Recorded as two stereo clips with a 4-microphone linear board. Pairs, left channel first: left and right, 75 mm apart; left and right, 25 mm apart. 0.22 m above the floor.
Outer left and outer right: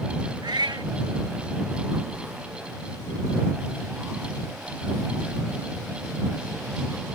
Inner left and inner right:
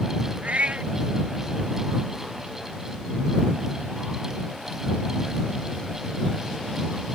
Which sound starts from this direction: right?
A cat meowing, at 0.4 s.